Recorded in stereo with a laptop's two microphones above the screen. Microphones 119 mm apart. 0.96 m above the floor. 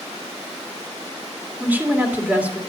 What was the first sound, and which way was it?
A woman speaking, 10° right (ahead or behind).